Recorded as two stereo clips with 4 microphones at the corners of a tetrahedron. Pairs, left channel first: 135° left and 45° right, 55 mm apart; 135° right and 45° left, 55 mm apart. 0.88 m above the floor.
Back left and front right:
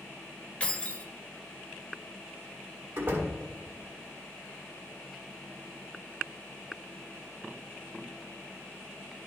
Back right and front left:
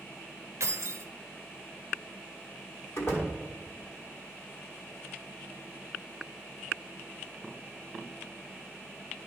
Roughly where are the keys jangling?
Ahead left.